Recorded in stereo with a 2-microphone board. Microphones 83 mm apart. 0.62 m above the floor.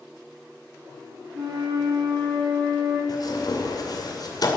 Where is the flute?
60° right (ahead or behind), 4 m.